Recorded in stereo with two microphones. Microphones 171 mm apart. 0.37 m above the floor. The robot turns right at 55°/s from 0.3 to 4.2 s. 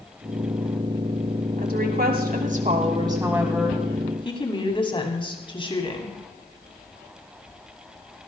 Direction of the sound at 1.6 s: 110° right.